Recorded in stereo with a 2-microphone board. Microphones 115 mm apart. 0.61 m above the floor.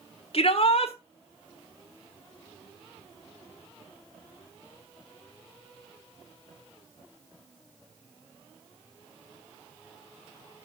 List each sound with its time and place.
0.3 s a shout: 55° left (ahead or behind), 1.5 m